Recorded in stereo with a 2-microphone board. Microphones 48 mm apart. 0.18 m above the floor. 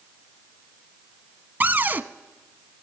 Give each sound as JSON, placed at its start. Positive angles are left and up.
{"t": 1.6, "sound": "a cupboard door", "side_deg": -40, "distance_m": 0.5}